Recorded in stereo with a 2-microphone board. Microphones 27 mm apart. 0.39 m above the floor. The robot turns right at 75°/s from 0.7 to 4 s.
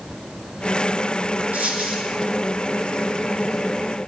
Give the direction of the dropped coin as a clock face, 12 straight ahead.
3 o'clock.